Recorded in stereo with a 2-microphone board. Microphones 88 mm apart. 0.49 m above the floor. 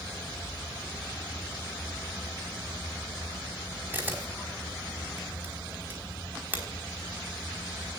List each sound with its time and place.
3.9 s a camera shutter: 20° right (ahead or behind), 4.5 m